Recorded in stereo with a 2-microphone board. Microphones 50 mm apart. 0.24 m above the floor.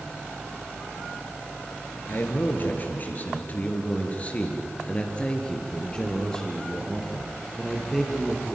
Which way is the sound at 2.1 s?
45° left (ahead or behind).